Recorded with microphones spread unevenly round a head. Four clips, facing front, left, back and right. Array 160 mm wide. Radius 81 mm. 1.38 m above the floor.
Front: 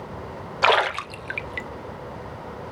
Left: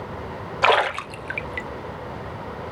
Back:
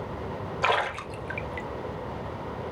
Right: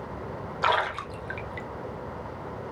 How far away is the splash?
About 0.7 m.